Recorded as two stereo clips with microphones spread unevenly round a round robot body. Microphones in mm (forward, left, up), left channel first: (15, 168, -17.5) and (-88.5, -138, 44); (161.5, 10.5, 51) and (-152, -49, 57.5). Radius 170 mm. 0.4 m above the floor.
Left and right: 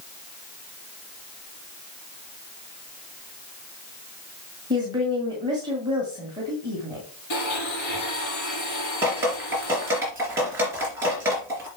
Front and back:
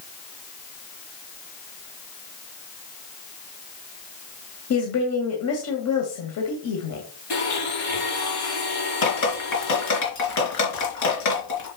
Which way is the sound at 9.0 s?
25° right.